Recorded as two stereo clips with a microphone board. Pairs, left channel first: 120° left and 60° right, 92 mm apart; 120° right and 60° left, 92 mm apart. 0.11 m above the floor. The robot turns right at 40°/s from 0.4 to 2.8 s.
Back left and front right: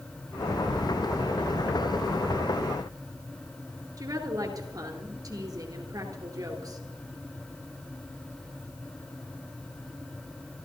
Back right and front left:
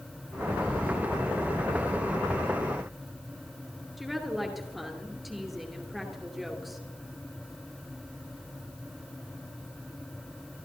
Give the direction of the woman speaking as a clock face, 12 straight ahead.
1 o'clock.